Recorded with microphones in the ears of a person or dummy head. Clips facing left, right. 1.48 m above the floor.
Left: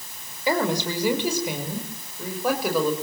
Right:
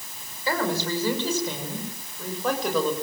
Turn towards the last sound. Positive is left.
turn(degrees=10)  # may be behind; listen again after turning